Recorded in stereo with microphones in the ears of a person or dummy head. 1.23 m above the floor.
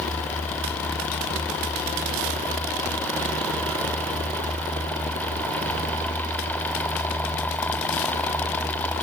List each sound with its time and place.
Only background noise.